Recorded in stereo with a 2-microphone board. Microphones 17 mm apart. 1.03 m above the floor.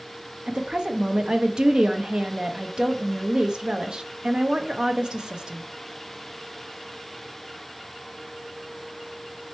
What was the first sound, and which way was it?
A woman speaking, 50° right (ahead or behind).